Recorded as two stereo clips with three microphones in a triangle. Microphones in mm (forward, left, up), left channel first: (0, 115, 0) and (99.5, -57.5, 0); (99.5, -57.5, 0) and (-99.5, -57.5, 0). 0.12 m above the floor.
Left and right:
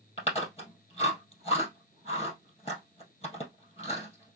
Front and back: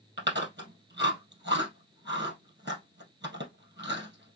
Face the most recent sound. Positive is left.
turn(degrees=175)